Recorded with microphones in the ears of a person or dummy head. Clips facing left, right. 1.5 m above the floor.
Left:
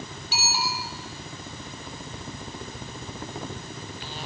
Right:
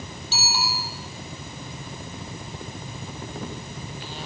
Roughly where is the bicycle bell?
Centre.